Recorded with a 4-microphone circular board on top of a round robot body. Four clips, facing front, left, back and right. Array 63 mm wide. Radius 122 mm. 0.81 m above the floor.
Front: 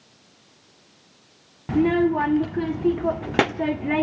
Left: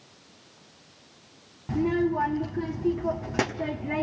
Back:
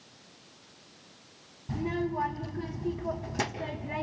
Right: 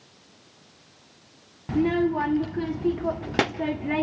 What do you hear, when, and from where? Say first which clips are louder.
1.7 s a child speaking: right 2 dB, front 12 dB; 10° right, 1.0 m